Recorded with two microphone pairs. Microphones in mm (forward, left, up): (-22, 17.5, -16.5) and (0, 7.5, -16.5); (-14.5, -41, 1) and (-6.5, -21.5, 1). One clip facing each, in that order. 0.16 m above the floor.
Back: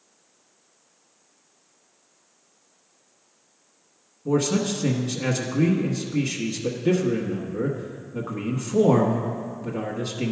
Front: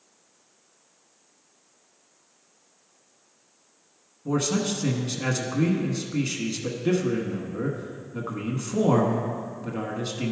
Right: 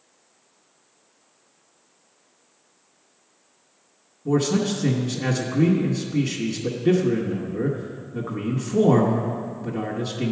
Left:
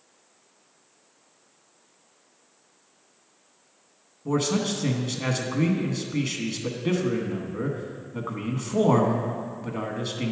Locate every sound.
4.2 s a man speaking: 45° left, 1.1 m